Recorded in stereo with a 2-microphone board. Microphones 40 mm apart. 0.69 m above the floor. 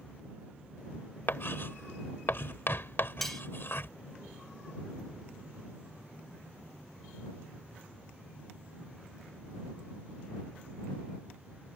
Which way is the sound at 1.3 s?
60° left (ahead or behind).